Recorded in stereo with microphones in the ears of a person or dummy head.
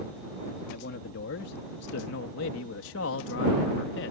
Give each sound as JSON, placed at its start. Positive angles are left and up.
{"t": 0.7, "sound": "a man speaking", "side_deg": 60}